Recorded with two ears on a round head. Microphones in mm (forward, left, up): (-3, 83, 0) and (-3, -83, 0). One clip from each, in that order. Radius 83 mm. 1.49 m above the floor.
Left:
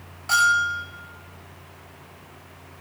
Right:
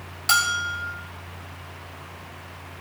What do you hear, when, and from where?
0.3 s a bell: 65° right (ahead or behind), 6 m